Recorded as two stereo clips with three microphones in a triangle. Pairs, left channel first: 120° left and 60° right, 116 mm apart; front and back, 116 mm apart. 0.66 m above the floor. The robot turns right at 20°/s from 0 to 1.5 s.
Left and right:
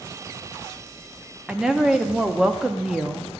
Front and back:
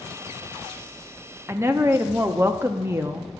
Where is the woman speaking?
140° right, 0.6 m.